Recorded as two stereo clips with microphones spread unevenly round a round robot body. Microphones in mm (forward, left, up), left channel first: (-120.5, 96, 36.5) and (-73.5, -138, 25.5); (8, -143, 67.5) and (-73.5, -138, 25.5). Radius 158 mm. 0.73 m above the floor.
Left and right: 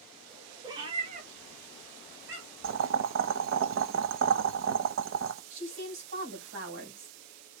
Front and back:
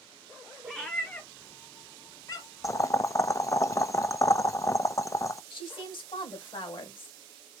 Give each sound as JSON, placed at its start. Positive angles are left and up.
{"t": 0.6, "sound": "a cat meowing", "azimuth_deg": -10, "distance_m": 0.7}
{"t": 2.6, "sound": "boiling", "azimuth_deg": -75, "distance_m": 0.8}
{"t": 5.5, "sound": "a woman speaking", "azimuth_deg": -30, "distance_m": 3.0}